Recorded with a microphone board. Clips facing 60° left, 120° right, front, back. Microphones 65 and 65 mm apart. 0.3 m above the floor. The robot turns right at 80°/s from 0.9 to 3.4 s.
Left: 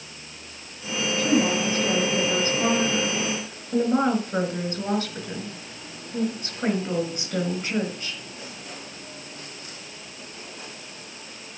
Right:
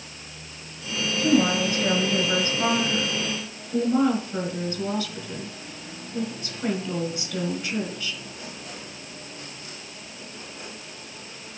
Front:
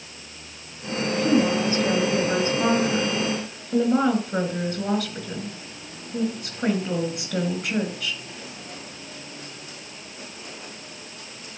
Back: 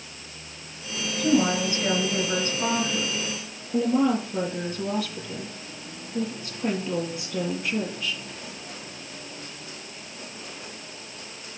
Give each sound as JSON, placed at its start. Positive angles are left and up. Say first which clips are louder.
{"t": 1.2, "sound": "a woman speaking", "louder": "right 2 dB, front 1 dB", "azimuth_deg": -165, "distance_m": 5.0}